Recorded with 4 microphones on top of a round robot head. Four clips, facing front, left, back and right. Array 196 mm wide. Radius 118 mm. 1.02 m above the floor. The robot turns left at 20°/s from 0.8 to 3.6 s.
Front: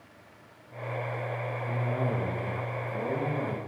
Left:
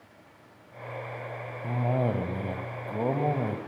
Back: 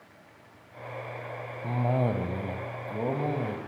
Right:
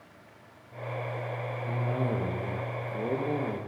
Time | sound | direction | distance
1.6 | a cough | 140° left | 5.5 m